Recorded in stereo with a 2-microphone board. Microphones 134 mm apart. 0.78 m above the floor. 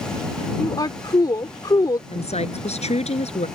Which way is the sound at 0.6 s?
30° left (ahead or behind).